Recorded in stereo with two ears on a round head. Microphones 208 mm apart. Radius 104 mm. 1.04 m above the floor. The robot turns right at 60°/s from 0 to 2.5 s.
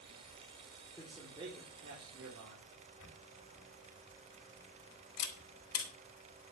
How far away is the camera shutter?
About 3.5 m.